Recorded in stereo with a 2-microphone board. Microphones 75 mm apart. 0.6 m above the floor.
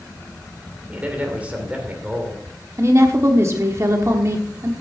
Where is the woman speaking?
40° right (ahead or behind), 1.2 m.